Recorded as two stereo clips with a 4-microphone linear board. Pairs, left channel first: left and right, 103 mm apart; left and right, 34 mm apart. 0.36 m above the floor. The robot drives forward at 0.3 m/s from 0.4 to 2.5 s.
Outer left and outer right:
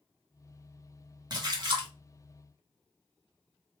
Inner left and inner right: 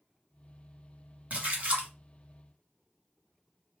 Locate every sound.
1.3 s a splash: 45° right (ahead or behind), 1.4 m; by 1.9 s 50° right (ahead or behind), 1.3 m